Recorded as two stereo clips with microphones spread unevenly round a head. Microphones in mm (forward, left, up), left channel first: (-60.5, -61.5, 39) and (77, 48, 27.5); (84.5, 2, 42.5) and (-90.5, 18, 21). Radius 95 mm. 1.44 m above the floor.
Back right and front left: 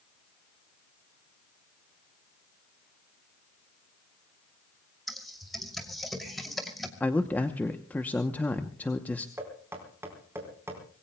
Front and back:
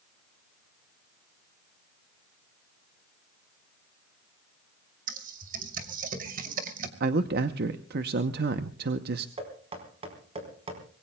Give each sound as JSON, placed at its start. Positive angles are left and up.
{"t": 5.1, "sound": "typing on a keyboard", "azimuth_deg": 130, "distance_m": 2.5}
{"t": 7.0, "sound": "a man speaking", "azimuth_deg": 140, "distance_m": 0.8}
{"t": 9.4, "sound": "knocking", "azimuth_deg": 115, "distance_m": 4.5}